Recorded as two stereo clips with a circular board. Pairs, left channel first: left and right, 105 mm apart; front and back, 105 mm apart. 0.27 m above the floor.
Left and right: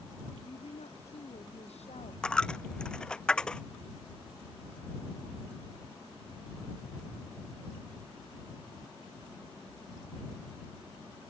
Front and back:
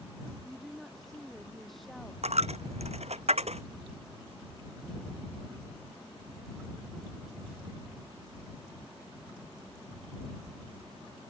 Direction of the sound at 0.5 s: 90° left.